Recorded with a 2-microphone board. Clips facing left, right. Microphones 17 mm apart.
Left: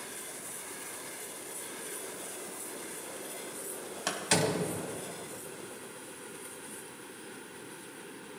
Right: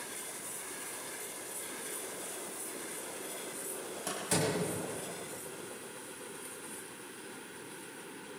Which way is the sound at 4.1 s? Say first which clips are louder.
Left 4 dB; 50° left (ahead or behind).